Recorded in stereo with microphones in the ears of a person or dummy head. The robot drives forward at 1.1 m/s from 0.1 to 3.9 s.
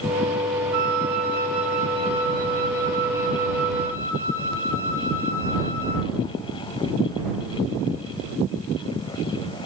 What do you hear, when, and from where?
0.7 s a flute: 50° right (ahead or behind), 1.1 m; by 6.1 s 15° right (ahead or behind), 3.5 m